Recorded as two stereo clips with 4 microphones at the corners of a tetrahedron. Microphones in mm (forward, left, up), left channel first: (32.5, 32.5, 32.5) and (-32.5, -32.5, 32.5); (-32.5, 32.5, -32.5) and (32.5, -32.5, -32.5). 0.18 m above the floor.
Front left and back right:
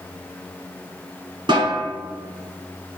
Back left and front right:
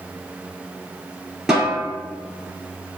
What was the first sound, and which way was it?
A snare drum, 130° right.